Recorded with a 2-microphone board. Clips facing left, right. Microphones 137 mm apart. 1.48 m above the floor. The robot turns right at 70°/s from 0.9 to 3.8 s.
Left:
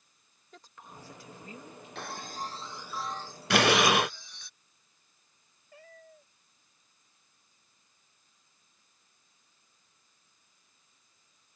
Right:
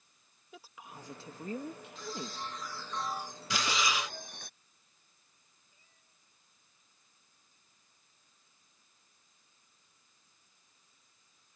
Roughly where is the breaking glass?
Left.